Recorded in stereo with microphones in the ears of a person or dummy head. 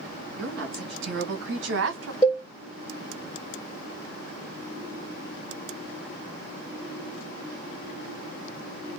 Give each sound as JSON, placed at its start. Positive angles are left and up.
{"t": 0.4, "sound": "a woman speaking", "side_deg": -55, "distance_m": 2.5}
{"t": 2.2, "sound": "a cowbell", "side_deg": 25, "distance_m": 1.2}